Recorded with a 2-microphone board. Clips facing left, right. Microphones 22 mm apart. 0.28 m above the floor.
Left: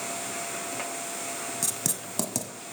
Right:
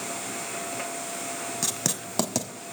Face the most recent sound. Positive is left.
turn(degrees=-25)  # may be behind; listen again after turning